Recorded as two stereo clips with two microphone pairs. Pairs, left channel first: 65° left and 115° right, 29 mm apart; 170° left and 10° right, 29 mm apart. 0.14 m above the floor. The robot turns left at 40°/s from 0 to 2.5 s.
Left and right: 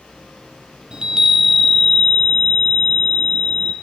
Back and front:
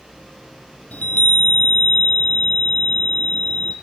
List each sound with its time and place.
0.9 s a chime: 175° right, 1.7 m; by 3.7 s 120° left, 1.7 m